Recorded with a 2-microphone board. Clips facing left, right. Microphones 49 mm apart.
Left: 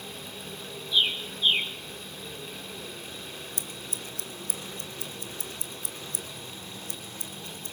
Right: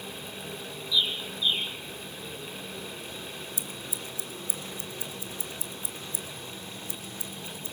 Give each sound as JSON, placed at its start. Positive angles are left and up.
{"t": 0.9, "sound": "a bird", "side_deg": 55, "distance_m": 2.5}
{"t": 3.6, "sound": "scissors", "side_deg": 55, "distance_m": 2.0}